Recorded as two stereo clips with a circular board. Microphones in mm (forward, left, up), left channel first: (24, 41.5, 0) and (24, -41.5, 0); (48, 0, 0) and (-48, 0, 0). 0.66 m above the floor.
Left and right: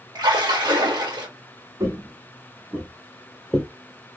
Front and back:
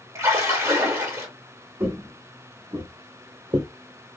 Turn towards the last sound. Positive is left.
turn(degrees=165)